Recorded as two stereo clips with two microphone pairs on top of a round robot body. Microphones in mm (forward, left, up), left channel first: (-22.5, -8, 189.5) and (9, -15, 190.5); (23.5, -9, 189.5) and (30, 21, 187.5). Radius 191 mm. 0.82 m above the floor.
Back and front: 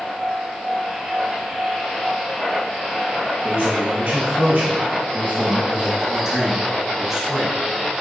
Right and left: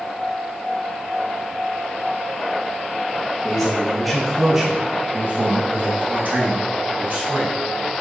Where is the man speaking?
30° right, 1.2 m; by 7.5 s 70° left, 1.9 m.